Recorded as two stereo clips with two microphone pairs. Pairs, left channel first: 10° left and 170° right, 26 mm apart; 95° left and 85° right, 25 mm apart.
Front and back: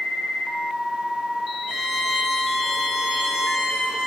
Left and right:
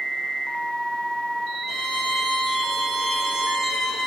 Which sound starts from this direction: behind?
A violin, at 1.7 s.